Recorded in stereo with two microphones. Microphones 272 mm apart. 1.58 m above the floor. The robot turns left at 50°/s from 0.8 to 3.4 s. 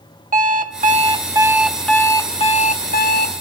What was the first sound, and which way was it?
An alarm clock, 130° right.